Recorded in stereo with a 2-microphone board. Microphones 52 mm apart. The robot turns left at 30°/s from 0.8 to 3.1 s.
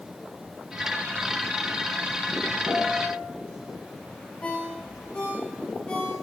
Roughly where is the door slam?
I don't hear a door slam.